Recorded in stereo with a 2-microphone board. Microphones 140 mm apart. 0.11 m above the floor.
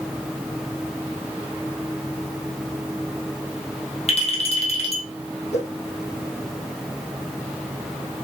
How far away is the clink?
About 2 m.